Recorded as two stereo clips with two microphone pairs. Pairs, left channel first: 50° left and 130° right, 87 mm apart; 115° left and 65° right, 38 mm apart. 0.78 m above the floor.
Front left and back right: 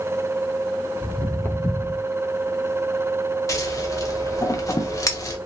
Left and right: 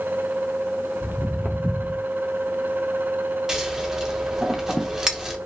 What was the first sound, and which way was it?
Footsteps, 125° left.